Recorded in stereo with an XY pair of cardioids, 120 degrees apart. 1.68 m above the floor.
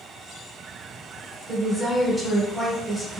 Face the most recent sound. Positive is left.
turn(degrees=-5)